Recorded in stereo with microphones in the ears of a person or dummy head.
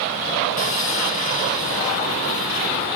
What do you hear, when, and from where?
0.6 s sawing: 40° left (ahead or behind), 1.1 m